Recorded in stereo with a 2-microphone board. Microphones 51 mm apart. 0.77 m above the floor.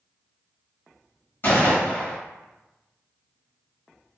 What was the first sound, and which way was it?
A gunshot, 45° left (ahead or behind).